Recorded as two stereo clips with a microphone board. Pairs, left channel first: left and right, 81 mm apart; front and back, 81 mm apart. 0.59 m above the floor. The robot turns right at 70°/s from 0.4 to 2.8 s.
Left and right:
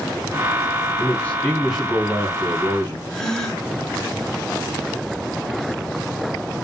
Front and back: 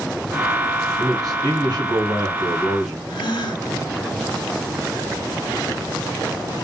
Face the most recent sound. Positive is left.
turn(degrees=5)